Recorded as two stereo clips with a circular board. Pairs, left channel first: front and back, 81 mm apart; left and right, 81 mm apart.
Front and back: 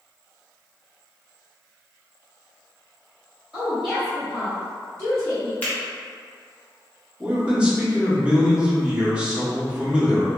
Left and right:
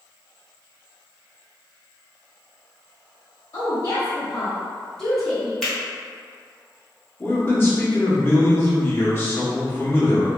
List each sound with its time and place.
3.5 s a woman speaking: 110° left, 1.0 m; by 5.5 s 5° right, 1.0 m
5.6 s a finger snap: 20° left, 1.0 m
7.2 s a man speaking: 120° left, 0.8 m